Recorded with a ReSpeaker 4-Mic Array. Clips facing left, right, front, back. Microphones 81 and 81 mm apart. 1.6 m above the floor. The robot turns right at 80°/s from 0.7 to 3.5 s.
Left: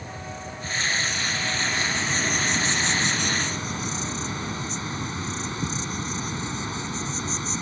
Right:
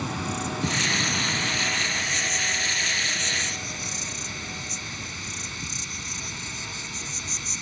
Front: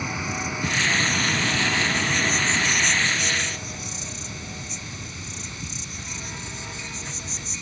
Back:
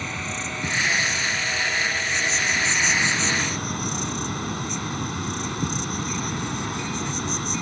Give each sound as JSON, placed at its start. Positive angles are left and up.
{"t": 0.0, "sound": "an insect", "azimuth_deg": -80}